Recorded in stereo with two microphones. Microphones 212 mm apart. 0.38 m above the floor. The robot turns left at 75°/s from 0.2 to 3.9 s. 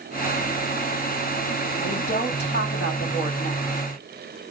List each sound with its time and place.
1.8 s a woman speaking: 165° left, 3 m; by 3.8 s 10° left, 3 m